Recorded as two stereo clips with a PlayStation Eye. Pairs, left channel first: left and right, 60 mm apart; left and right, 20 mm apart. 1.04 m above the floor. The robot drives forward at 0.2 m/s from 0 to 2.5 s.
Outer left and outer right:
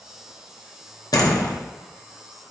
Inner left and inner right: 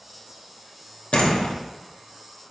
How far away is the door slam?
About 0.6 m.